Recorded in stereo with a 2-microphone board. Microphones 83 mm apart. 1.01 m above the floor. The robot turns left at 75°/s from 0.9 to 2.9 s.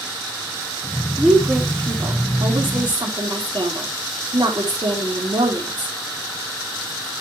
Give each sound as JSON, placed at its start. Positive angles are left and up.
{"t": 1.2, "sound": "a woman speaking", "azimuth_deg": 5, "distance_m": 3.0}